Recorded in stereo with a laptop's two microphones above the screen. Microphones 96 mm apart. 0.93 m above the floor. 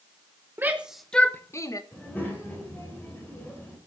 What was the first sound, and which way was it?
A shout, 20° right (ahead or behind).